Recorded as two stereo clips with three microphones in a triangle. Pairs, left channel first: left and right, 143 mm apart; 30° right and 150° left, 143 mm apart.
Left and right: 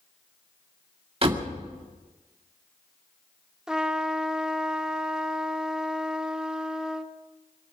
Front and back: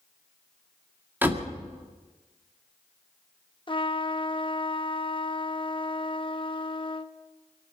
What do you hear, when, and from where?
1.2 s a door slam: 135° right, 1.9 m
3.7 s a trumpet: 5° right, 0.8 m